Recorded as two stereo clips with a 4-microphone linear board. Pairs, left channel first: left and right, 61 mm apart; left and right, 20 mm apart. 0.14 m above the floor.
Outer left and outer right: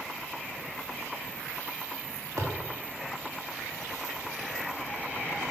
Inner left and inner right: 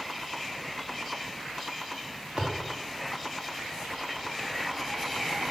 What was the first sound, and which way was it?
A thud, 55° right (ahead or behind).